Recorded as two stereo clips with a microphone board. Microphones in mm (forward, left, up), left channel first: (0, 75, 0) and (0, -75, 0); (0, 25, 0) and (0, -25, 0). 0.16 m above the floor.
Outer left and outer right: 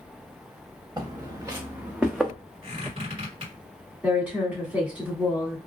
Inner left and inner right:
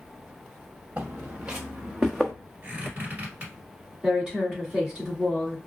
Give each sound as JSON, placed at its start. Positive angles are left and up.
{"t": 1.0, "sound": "footsteps", "side_deg": -25, "distance_m": 1.3}
{"t": 2.6, "sound": "a squeak", "side_deg": -35, "distance_m": 1.8}
{"t": 4.0, "sound": "a woman speaking", "side_deg": -10, "distance_m": 1.3}